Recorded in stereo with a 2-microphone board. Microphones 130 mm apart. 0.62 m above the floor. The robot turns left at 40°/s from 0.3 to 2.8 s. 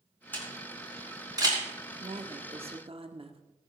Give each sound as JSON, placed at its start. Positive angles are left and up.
{"t": 0.3, "sound": "a camera shutter", "side_deg": 15, "distance_m": 4.5}
{"t": 2.0, "sound": "a woman speaking", "azimuth_deg": -80, "distance_m": 1.4}